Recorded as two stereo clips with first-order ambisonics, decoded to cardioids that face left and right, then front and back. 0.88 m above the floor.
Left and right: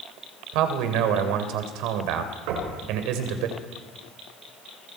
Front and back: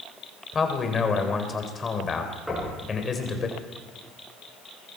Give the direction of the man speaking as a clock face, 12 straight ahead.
2 o'clock.